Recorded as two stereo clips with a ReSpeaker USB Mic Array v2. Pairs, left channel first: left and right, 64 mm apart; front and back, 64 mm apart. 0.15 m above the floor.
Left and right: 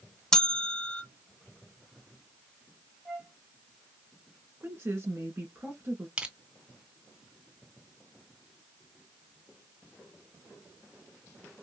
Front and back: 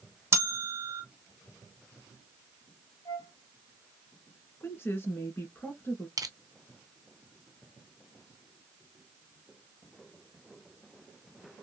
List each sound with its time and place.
0.3 s a bell: 165° left, 0.9 m
3.0 s a flute: 10° right, 2.5 m
4.6 s a woman speaking: 45° right, 2 m
6.2 s crushing: 160° right, 0.5 m